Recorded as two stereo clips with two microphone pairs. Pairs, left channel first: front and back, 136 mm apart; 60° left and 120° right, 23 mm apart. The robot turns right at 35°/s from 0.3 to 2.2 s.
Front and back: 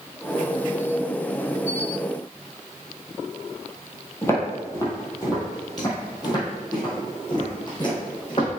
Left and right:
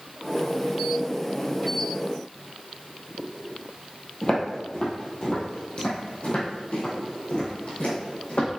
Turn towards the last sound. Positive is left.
turn(degrees=50)